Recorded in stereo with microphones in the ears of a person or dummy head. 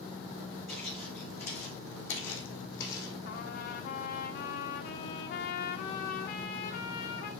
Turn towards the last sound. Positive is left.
turn(degrees=50)  # may be behind; listen again after turning